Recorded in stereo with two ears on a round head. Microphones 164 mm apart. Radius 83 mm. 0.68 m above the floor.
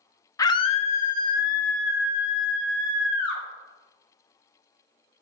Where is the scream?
15° left (ahead or behind), 0.6 m; by 3.4 s 60° left (ahead or behind), 2.5 m.